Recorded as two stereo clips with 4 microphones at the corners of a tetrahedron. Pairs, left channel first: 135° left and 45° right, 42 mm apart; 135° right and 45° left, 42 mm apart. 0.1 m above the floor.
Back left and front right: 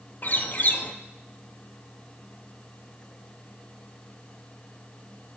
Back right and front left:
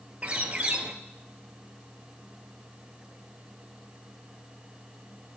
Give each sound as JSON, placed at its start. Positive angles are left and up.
{"t": 0.2, "sound": "a bird", "azimuth_deg": 95, "distance_m": 0.9}